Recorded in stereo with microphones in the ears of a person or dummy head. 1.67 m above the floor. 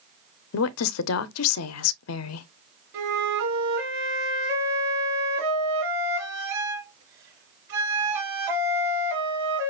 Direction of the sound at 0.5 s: 75° left (ahead or behind).